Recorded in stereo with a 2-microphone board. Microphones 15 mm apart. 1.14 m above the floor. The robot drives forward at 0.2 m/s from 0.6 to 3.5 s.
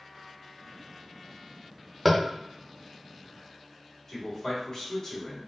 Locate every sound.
2.0 s tapping: 5° left (ahead or behind), 0.5 m
4.1 s a man speaking: 40° left (ahead or behind), 1.5 m